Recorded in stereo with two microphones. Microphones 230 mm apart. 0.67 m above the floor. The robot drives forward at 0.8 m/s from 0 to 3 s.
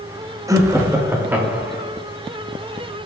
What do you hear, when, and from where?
0.5 s laughter: 15° right (ahead or behind), 0.7 m; by 1.9 s 5° right (ahead or behind), 1.5 m